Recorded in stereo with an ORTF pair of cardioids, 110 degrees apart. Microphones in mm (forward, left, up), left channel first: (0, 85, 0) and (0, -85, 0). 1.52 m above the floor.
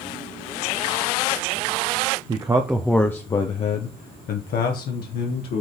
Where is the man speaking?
25° right, 0.9 m; by 5.6 s 75° left, 1.9 m.